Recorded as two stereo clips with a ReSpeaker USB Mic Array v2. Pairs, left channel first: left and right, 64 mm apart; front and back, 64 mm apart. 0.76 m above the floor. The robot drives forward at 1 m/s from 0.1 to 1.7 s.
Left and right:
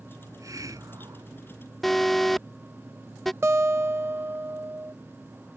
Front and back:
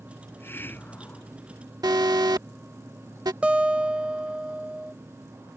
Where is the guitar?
115° right.